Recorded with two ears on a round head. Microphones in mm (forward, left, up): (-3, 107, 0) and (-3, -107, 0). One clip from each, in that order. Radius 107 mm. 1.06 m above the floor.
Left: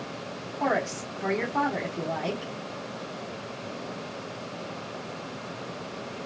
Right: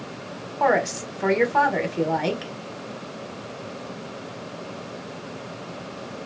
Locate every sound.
0.6 s a woman speaking: 30° right (ahead or behind), 1.2 m